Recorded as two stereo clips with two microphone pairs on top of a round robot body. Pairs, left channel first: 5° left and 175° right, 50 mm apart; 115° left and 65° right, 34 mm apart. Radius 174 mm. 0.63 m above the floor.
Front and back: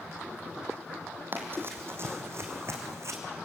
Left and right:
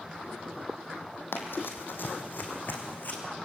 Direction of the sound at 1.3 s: 130° left.